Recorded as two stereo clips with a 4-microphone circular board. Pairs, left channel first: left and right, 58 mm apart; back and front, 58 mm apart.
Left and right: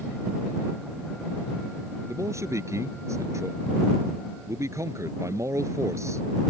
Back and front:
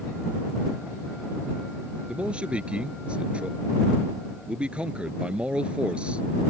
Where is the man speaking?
70° right.